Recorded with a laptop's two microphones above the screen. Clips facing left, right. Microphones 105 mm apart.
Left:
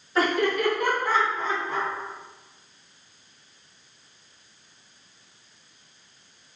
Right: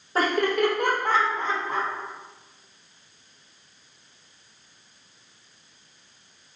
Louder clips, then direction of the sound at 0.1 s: Right 1 dB; 40° right (ahead or behind).